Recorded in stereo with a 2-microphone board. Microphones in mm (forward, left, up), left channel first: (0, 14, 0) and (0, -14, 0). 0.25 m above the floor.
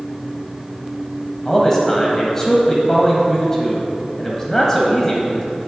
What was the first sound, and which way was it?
A man speaking, 15° left (ahead or behind).